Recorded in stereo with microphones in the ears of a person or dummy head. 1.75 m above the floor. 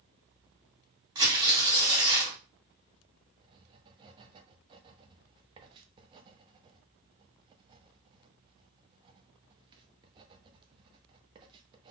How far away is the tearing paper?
About 2.5 m.